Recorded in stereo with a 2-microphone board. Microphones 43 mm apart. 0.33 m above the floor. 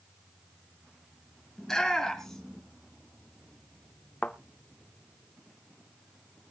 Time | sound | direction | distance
1.6 | a shout | 10° left (ahead or behind) | 4.5 m
4.2 | a thud | 25° left (ahead or behind) | 1.4 m